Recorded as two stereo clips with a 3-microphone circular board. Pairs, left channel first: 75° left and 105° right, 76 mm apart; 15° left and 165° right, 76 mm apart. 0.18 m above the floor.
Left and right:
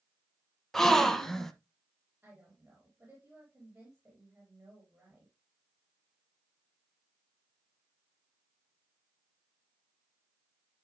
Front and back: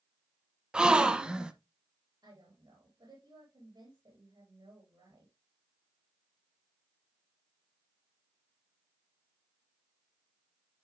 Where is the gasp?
150° left, 1.0 m.